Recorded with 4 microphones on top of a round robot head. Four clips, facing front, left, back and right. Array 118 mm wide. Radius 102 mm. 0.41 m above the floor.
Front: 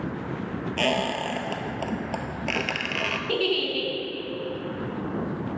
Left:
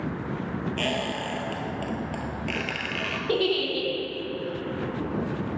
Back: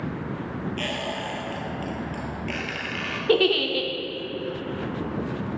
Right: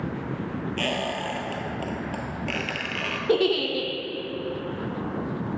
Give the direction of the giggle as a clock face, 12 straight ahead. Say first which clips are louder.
Right 3 dB, back 7 dB; 5 o'clock.